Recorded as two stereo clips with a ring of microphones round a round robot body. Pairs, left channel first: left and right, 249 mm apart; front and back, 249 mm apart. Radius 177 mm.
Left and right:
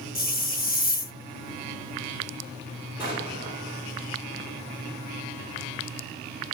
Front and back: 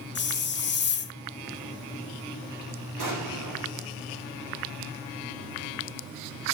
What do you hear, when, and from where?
0.1 s a hiss: 40° left, 1.1 m
3.0 s an explosion: 175° right, 3 m